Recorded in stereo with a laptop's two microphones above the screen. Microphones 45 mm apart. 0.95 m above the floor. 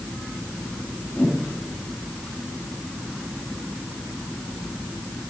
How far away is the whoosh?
About 6 m.